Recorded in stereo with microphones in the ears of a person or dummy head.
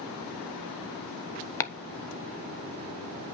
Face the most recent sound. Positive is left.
turn(degrees=10)  # may be behind; listen again after turning